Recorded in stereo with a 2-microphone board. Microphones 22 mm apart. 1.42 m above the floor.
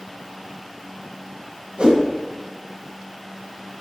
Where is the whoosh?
50° right (ahead or behind), 2.5 m.